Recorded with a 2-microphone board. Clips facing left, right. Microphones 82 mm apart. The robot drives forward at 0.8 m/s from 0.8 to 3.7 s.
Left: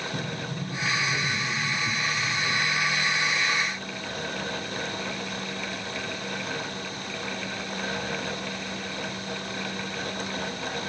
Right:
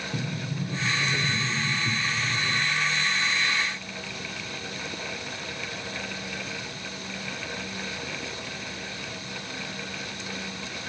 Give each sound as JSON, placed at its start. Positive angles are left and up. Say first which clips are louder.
{"t": 0.1, "sound": "a sliding door", "louder": "even", "side_deg": -5, "distance_m": 1.4}